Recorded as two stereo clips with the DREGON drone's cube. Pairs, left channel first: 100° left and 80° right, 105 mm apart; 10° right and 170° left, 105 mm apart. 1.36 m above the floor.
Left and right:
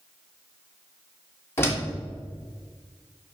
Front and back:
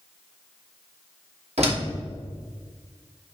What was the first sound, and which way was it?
A door slam, 165° left.